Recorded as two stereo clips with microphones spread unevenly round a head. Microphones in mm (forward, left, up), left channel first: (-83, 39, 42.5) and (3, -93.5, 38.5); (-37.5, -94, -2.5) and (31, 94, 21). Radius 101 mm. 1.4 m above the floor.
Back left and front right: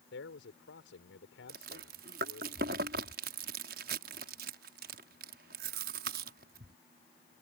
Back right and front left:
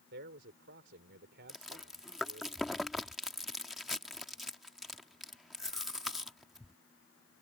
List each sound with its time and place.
0.1 s a man speaking: 105° left
1.5 s chewing: 20° right